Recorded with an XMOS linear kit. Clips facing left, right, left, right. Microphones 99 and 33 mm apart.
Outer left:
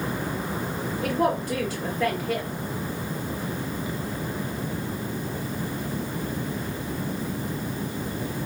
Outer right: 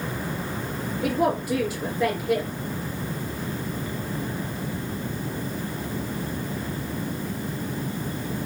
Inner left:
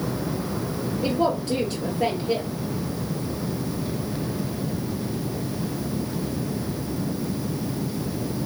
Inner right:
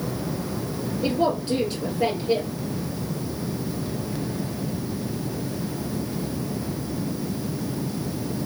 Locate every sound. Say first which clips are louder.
1.0 s a woman speaking: outer right 1 dB, even; 10° right (ahead or behind), 2.5 m